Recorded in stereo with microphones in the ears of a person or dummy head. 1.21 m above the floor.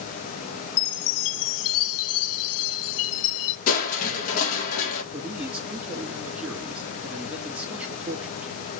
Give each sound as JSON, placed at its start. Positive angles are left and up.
{"t": 0.8, "sound": "a chime", "side_deg": 75, "distance_m": 0.7}
{"t": 3.7, "sound": "crushing", "side_deg": 45, "distance_m": 1.5}
{"t": 5.1, "sound": "a man speaking", "side_deg": -5, "distance_m": 1.7}